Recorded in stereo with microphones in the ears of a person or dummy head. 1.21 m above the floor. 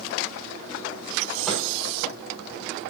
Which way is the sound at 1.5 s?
Centre (ahead or behind).